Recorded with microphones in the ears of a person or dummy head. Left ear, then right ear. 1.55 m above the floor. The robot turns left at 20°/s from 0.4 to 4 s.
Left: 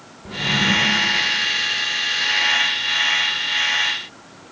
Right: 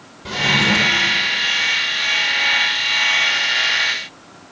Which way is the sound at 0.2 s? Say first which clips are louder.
Right 3 dB; 30° right (ahead or behind).